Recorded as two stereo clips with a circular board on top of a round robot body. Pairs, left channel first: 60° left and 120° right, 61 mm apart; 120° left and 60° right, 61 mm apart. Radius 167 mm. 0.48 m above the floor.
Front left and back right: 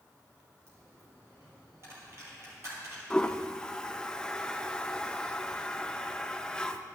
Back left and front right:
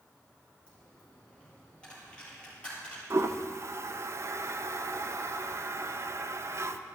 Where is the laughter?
I don't hear laughter.